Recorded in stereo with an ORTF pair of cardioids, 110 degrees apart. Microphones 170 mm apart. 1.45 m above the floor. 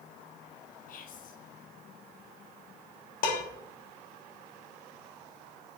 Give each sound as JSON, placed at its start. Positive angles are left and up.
{"t": 0.9, "sound": "whispering", "azimuth_deg": 55, "distance_m": 1.6}
{"t": 3.2, "sound": "dishes clattering", "azimuth_deg": 60, "distance_m": 1.7}